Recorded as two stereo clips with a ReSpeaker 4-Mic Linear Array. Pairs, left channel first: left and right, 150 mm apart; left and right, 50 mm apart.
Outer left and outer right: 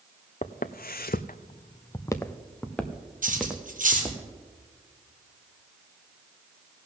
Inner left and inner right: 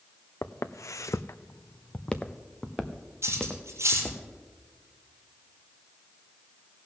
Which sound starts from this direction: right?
Cutlery clinking, at 3.2 s.